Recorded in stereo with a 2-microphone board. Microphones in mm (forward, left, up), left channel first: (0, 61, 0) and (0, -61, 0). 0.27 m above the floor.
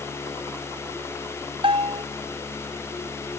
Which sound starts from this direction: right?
A bell, at 1.6 s.